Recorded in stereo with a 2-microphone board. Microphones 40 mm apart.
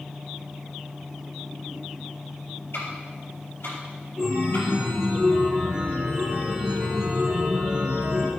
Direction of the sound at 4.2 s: 20° right (ahead or behind).